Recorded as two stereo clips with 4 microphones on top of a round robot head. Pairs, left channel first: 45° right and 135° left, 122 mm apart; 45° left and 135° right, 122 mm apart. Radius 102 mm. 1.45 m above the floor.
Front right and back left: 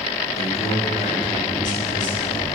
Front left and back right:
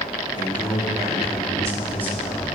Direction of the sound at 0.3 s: 85° right.